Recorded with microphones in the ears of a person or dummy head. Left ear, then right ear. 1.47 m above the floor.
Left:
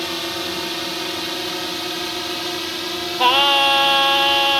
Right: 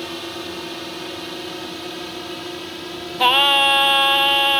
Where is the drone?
20° left (ahead or behind); by 4.6 s 25° left (ahead or behind).